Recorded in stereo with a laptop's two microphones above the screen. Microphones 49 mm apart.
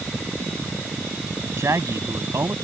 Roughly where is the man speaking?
Right.